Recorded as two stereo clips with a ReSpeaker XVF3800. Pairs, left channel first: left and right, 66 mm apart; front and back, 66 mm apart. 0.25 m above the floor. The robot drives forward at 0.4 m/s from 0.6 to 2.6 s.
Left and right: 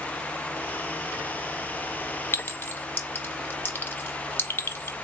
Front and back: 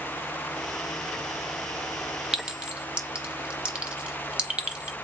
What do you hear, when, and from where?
2.3 s a clink: 105° left, 0.7 m; by 4.9 s 115° left, 0.7 m